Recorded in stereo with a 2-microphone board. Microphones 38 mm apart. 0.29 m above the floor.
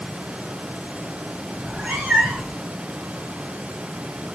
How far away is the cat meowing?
About 5.5 m.